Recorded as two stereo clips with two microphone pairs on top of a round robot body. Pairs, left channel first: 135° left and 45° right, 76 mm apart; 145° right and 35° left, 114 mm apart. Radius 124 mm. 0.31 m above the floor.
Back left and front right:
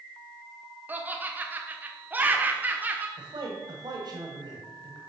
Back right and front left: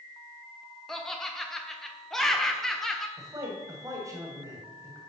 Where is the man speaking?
25° right, 2 m.